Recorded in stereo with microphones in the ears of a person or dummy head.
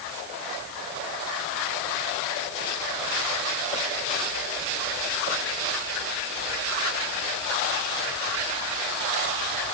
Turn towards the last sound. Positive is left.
No sound to turn to.